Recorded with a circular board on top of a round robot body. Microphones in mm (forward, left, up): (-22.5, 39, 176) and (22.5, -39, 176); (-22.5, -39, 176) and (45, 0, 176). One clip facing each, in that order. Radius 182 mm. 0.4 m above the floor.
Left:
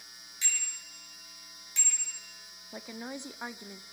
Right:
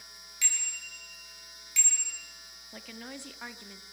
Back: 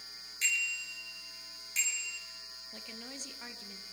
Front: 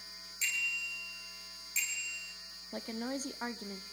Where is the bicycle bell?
175° left, 8 m.